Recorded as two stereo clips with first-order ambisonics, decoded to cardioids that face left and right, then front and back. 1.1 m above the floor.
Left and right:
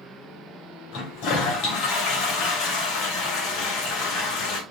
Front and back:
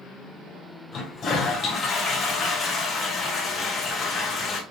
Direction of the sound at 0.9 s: 70° left.